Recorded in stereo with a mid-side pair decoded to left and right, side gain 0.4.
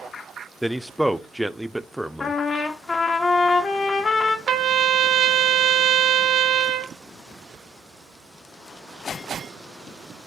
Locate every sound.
0.6 s a man speaking: straight ahead, 0.6 m
2.2 s a trumpet: 50° left, 1.2 m
4.5 s a trumpet: 60° right, 0.8 m